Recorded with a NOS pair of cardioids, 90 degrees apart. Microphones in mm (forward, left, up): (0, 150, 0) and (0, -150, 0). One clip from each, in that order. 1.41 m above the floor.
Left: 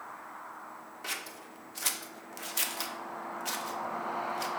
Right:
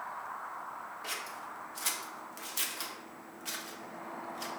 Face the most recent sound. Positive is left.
turn(degrees=20)